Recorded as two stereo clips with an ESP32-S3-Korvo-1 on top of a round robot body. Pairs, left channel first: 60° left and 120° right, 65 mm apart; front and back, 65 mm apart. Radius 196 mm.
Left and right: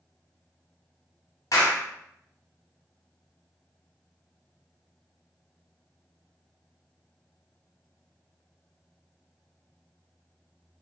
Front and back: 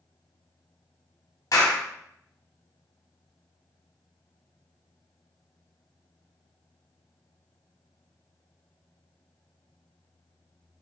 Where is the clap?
25° left, 1.9 m.